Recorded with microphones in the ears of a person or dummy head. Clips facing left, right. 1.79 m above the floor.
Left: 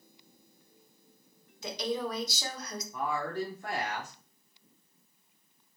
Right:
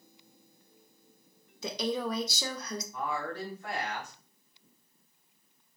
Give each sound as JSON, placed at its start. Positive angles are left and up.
{"t": 1.6, "sound": "a woman speaking", "side_deg": -75, "distance_m": 0.6}
{"t": 2.9, "sound": "a woman speaking", "side_deg": 40, "distance_m": 0.8}